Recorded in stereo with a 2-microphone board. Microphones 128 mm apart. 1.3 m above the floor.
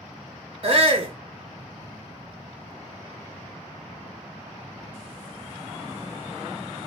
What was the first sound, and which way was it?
A shout, 45° right (ahead or behind).